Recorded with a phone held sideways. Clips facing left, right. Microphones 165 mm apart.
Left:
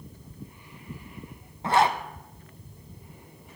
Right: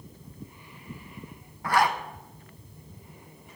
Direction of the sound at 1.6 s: 25° left (ahead or behind).